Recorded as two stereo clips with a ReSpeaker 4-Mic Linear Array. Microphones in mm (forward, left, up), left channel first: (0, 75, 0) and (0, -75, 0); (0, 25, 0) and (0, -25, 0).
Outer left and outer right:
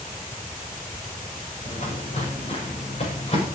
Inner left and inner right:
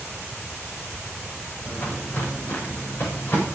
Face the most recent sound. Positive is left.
turn(degrees=45)  # may be behind; listen again after turning